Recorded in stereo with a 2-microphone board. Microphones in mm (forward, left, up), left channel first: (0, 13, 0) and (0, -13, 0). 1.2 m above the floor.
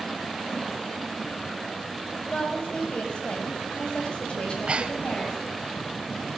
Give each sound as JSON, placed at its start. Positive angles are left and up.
{"t": 2.3, "sound": "a woman speaking", "side_deg": 45, "distance_m": 7.0}
{"t": 4.4, "sound": "breathing", "side_deg": -50, "distance_m": 1.6}